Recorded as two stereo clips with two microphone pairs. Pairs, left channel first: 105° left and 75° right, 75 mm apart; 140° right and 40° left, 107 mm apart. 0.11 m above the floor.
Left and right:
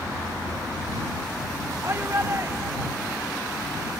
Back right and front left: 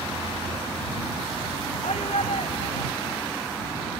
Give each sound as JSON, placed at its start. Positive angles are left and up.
{"t": 1.8, "sound": "a shout", "azimuth_deg": -130}